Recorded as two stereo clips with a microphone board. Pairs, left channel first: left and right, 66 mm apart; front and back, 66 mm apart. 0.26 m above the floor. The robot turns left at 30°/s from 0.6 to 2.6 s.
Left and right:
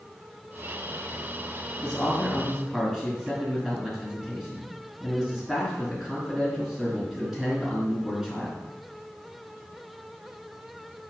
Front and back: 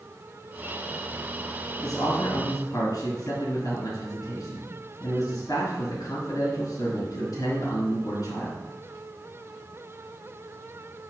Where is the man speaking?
15° left, 3.5 m; by 8.6 s 10° right, 3.5 m.